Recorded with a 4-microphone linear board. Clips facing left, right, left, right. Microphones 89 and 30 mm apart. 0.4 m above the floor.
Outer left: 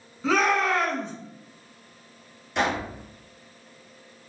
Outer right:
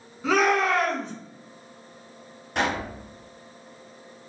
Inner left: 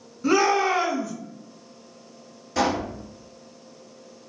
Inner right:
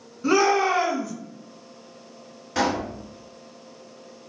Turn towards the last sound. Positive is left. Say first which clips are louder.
# outer left 1 dB, even
turn(degrees=-55)  # may be behind; listen again after turning